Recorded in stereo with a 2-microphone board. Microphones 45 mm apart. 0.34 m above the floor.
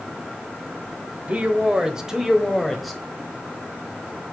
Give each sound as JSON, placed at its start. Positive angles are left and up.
{"t": 1.3, "sound": "a man speaking", "side_deg": -30, "distance_m": 1.2}